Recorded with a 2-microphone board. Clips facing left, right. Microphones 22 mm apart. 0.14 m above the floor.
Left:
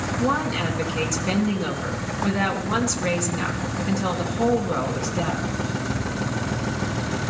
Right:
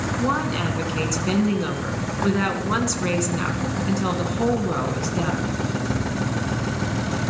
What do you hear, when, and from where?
0.2 s a woman speaking: 10° right (ahead or behind), 1.5 m